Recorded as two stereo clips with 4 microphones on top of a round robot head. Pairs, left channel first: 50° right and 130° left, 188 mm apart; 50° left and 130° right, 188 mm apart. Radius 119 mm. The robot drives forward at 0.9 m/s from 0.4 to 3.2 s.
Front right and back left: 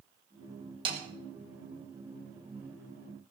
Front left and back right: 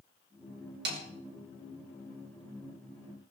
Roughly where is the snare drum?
Behind.